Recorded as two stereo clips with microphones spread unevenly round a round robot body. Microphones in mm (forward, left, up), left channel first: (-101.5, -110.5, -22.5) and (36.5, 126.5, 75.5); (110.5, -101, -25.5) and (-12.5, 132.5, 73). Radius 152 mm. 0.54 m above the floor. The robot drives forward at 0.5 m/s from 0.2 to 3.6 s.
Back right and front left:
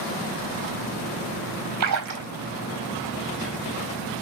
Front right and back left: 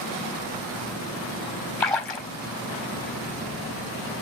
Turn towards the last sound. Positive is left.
turn(degrees=35)